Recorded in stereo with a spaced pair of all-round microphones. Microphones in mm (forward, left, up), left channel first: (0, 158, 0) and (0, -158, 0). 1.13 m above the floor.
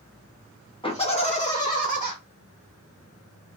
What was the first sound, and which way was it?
Laughter, 15° left (ahead or behind).